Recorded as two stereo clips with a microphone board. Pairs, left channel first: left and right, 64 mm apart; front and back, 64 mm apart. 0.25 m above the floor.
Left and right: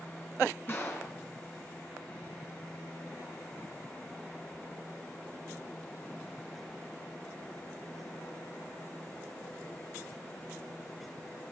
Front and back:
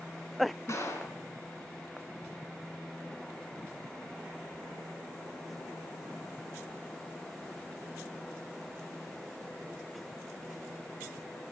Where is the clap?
30° left, 3.5 m.